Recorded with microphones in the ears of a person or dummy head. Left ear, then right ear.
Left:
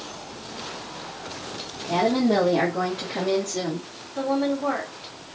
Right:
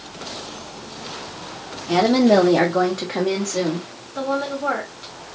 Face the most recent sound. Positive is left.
turn(degrees=-50)  # may be behind; listen again after turning